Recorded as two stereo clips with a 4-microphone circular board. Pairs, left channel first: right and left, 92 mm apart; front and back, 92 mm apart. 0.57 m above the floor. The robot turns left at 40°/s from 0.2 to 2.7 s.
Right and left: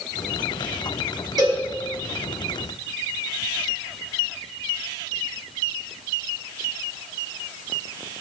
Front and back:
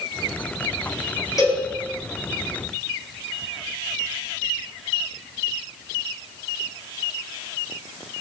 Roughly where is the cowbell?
Ahead left.